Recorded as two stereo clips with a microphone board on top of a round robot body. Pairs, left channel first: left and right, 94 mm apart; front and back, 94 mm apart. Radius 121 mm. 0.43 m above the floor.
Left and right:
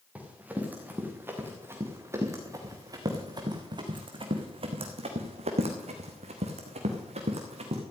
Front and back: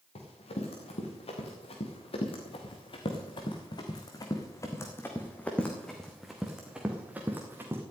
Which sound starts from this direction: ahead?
Running footsteps, at 0.1 s.